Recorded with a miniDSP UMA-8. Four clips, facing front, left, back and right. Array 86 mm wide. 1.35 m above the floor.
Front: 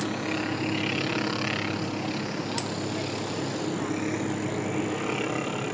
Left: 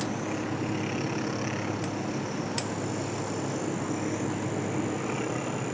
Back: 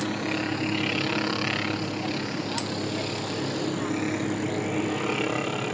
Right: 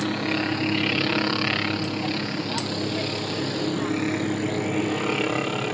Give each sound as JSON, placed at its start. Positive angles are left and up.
{"t": 0.0, "sound": "a helicopter", "azimuth_deg": -95}